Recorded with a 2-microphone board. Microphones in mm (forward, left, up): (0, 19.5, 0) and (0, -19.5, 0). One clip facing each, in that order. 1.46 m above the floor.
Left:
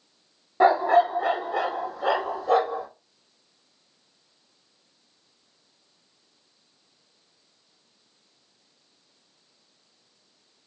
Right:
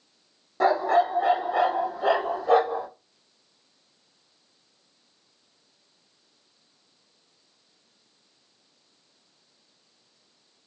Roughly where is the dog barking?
Centre.